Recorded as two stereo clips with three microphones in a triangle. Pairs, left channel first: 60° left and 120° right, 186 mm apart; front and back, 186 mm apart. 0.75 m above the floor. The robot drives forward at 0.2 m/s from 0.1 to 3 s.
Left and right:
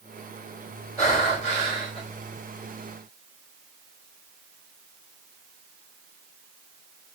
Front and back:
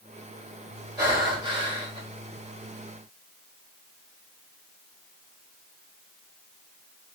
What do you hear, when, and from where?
1.0 s breathing: 110° left, 1.4 m; by 2.0 s 120° left, 1.5 m